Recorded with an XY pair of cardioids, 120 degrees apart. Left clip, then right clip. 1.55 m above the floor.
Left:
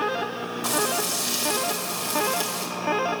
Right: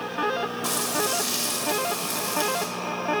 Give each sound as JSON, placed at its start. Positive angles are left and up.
{"t": 0.6, "sound": "frying", "azimuth_deg": 15, "distance_m": 1.8}